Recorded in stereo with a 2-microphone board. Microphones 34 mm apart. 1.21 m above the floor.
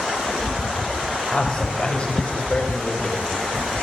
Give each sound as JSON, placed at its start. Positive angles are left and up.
{"t": 1.3, "sound": "a man speaking", "side_deg": 25, "distance_m": 6.5}